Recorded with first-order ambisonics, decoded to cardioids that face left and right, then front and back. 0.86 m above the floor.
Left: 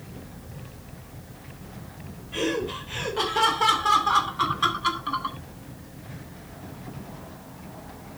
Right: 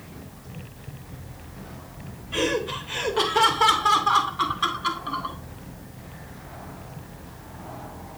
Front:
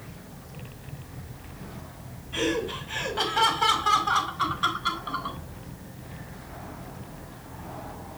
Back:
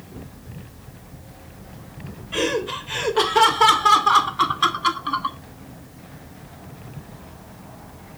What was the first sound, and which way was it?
Laughter, 155° right.